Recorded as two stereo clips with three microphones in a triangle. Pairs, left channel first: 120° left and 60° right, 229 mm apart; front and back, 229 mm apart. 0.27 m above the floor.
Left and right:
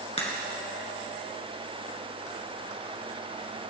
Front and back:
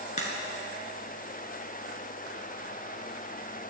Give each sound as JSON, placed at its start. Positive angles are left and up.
{"t": 0.2, "sound": "a crack", "azimuth_deg": 55, "distance_m": 2.5}